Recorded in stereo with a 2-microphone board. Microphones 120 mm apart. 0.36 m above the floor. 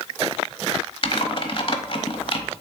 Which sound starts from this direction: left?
Typing on a keyboard, at 1.0 s.